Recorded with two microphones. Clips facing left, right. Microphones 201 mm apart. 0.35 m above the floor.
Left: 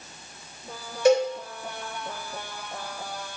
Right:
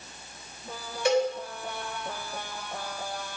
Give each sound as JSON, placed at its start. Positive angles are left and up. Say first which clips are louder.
{"t": 1.1, "sound": "a cowbell", "louder": "left 5 dB", "side_deg": 40, "distance_m": 1.8}